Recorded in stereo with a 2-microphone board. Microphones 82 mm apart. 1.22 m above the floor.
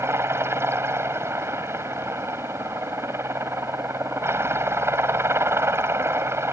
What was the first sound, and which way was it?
A helicopter, 30° right (ahead or behind).